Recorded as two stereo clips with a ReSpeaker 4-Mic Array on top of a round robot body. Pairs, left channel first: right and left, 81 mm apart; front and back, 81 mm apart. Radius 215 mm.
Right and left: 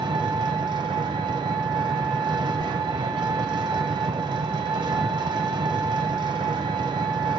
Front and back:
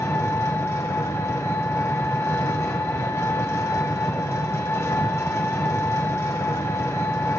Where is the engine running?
60° left, 0.9 m.